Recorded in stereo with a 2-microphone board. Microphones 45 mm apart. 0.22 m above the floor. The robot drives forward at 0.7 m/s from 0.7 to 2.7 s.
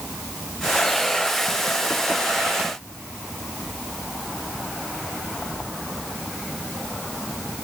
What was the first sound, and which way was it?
Only background noise.